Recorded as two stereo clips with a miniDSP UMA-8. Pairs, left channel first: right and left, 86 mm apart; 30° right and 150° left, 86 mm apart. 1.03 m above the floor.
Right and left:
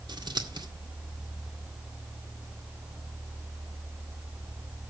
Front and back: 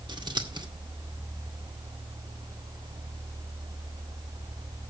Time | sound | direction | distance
0.1 | scissors | 120° left | 2.0 m